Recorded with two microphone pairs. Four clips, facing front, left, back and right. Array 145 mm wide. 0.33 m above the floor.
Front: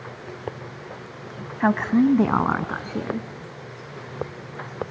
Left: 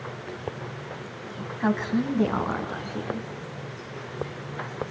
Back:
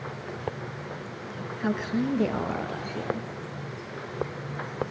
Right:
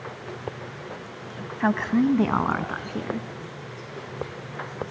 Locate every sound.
1.6 s a woman speaking: 15° right, 2.0 m; by 3.3 s 25° right, 4 m